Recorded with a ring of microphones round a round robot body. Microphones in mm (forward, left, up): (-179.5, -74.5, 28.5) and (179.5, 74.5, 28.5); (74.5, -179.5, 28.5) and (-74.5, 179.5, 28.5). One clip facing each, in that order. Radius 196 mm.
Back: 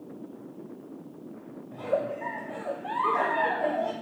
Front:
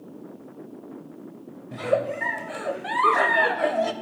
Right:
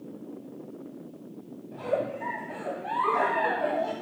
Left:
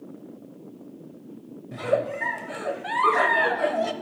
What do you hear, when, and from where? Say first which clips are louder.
1.7 s a giggle: front 5 dB, left 4 dB; 65° left, 0.6 m